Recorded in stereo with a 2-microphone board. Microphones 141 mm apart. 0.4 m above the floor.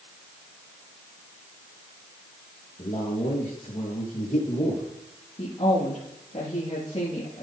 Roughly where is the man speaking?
Left.